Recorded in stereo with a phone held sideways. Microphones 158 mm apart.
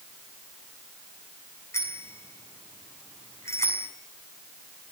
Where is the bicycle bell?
15° left (ahead or behind), 7 m.